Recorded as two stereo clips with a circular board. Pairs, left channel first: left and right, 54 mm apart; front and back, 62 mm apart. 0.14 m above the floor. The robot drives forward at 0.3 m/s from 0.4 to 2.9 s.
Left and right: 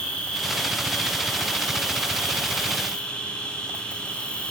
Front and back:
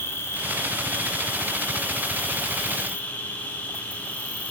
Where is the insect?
20° left, 3 m; by 4.5 s 35° left, 2.5 m.